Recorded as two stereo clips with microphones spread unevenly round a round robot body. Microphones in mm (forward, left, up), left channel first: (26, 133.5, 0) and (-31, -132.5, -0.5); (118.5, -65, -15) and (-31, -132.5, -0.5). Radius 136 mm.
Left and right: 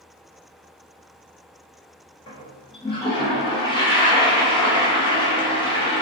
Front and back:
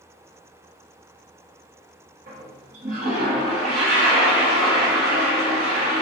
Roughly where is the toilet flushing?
Behind left.